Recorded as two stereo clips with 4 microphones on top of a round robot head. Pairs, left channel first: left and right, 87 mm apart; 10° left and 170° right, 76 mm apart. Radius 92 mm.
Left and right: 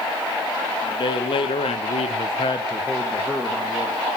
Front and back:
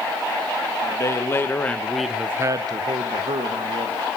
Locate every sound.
0.8 s a man speaking: 55° left, 2.5 m; by 4.0 s 165° right, 3 m